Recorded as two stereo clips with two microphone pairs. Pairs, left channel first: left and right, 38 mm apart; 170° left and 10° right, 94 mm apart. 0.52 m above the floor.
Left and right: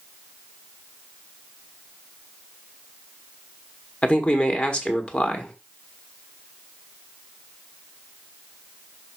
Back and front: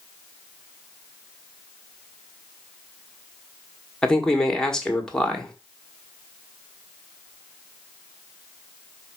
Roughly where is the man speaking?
Left.